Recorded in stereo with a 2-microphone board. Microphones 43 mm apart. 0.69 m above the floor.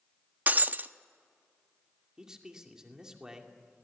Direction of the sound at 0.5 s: 40° right (ahead or behind).